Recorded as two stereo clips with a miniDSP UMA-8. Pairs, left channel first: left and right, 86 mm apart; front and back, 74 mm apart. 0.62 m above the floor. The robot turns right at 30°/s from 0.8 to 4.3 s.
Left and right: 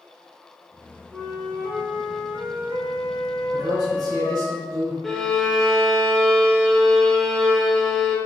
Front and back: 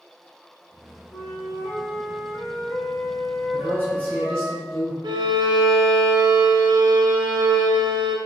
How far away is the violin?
About 0.5 m.